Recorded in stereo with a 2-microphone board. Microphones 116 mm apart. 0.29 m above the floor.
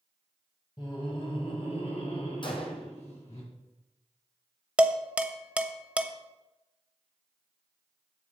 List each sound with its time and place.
0.8 s laughter: 40° left (ahead or behind), 2 m; by 3.4 s 70° left (ahead or behind), 4 m
2.4 s a gunshot: 45° left (ahead or behind), 1.7 m
4.8 s dishes clattering: 10° right (ahead or behind), 0.6 m